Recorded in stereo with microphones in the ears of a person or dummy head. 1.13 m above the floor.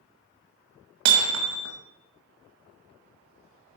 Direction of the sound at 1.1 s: 85° right.